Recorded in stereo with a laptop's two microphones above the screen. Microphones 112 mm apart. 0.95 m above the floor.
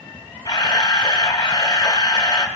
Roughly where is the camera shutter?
Left.